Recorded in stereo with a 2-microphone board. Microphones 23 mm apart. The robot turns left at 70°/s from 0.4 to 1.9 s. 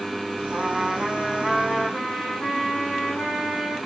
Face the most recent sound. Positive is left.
turn(degrees=150)